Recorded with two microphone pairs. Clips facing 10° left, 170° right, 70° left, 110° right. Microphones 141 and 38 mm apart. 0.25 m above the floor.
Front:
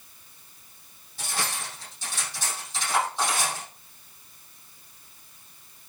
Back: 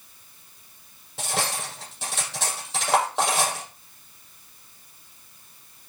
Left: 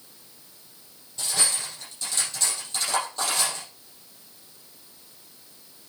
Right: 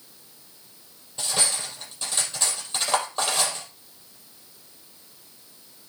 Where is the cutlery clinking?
165° right, 4.5 m.